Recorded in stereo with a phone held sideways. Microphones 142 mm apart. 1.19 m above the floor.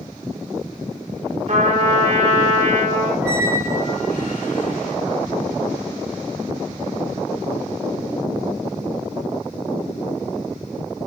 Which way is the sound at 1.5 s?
55° right (ahead or behind).